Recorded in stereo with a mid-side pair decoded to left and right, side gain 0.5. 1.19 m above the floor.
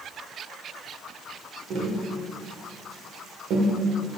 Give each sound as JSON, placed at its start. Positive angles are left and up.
{"t": 1.7, "sound": "tapping", "azimuth_deg": -70, "distance_m": 0.7}